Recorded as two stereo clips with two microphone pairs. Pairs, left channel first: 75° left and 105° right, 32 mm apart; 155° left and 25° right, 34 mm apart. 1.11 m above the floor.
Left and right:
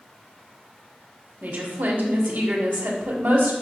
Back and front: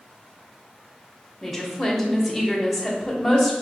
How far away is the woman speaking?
About 0.8 m.